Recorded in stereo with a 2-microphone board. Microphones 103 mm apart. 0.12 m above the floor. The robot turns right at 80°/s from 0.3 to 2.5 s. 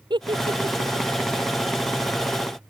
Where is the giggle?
50° right (ahead or behind); by 1.1 s 65° right (ahead or behind).